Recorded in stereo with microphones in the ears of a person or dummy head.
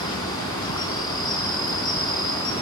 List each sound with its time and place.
0.0 s an insect: 15° left (ahead or behind), 1.9 m